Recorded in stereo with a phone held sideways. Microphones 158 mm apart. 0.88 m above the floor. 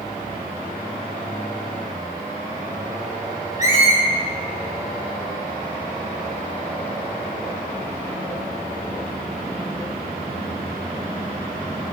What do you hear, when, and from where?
3.6 s a squeak: 50° left (ahead or behind), 1.2 m